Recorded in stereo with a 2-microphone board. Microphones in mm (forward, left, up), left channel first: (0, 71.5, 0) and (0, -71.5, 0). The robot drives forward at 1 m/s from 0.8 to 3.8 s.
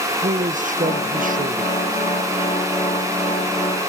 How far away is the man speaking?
About 0.6 m.